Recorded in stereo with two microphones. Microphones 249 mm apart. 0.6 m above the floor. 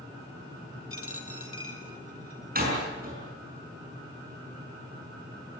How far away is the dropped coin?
About 2 m.